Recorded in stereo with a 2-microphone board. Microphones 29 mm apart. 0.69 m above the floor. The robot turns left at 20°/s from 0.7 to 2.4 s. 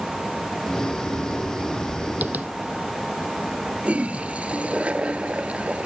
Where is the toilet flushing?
45° right (ahead or behind).